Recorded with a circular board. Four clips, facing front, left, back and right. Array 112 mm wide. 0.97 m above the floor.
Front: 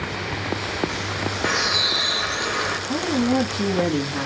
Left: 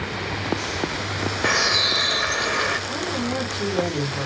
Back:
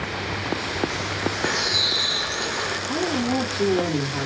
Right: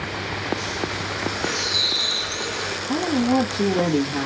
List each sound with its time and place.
1.4 s a bird: 65° left, 1.3 m
2.9 s a woman speaking: 80° right, 1.8 m